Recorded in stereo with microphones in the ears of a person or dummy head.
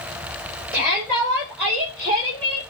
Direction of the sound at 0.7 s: 15° right (ahead or behind).